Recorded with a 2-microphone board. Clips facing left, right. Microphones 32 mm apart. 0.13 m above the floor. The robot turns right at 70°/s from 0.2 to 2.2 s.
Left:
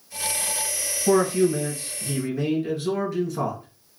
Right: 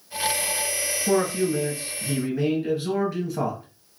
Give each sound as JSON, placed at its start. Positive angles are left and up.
{"t": 1.1, "sound": "a man speaking", "azimuth_deg": 110, "distance_m": 1.7}